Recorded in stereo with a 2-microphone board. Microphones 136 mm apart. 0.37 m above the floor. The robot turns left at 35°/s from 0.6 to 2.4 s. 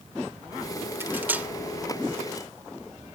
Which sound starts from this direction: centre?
Cutlery clinking, at 1.0 s.